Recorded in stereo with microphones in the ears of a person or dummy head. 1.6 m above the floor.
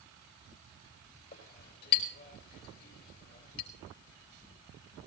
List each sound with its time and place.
1.3 s a clink: 55° left (ahead or behind), 3.5 m